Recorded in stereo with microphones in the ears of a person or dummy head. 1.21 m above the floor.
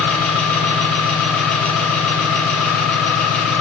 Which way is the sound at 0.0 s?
10° left (ahead or behind).